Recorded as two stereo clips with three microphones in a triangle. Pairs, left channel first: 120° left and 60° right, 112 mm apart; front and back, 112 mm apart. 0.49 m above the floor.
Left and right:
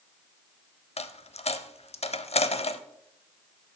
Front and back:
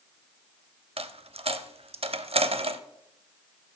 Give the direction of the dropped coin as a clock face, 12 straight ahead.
7 o'clock.